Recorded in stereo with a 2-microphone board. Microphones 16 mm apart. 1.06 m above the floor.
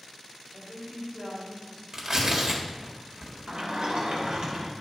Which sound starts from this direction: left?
A woman speaking, at 0.5 s.